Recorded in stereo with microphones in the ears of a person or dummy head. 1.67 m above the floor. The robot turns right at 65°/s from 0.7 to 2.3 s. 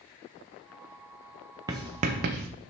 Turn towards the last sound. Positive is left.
turn(degrees=-45)  # may be behind; listen again after turning